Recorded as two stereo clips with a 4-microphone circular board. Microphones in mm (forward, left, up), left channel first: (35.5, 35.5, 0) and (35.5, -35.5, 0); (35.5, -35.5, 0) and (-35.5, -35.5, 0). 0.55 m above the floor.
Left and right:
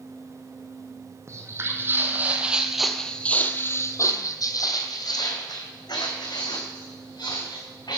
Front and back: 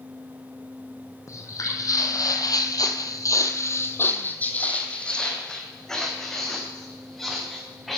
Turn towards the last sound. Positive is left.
turn(degrees=90)